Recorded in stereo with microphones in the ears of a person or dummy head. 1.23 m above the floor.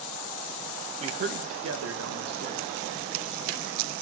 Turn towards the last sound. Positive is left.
turn(degrees=-45)  # may be behind; listen again after turning